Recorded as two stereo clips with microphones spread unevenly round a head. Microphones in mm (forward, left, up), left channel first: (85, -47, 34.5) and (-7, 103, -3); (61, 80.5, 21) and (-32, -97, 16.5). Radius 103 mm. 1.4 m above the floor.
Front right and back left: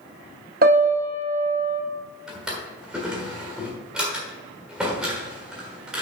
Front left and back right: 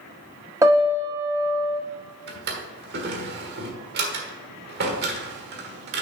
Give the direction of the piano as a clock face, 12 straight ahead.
6 o'clock.